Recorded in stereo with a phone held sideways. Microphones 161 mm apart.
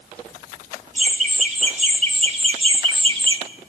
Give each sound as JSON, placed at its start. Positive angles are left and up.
{"t": 0.9, "sound": "laughter", "side_deg": -50, "distance_m": 3.0}